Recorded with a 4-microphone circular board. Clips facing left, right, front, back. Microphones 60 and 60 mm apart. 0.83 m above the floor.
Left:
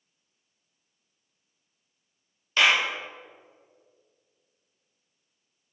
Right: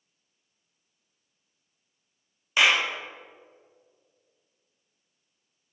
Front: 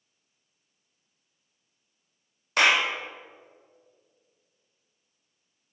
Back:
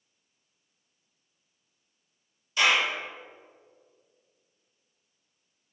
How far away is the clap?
About 1.6 m.